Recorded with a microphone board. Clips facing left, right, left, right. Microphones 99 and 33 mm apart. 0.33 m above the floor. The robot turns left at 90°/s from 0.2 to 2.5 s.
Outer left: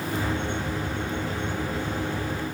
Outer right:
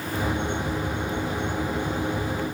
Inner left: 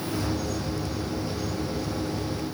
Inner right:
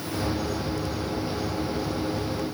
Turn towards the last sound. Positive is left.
No sound to turn to.